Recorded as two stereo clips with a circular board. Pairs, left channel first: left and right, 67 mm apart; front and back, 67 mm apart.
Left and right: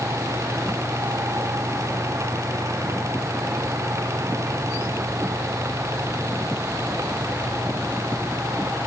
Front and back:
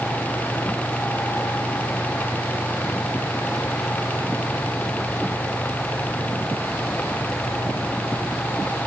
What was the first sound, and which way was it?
Only background noise.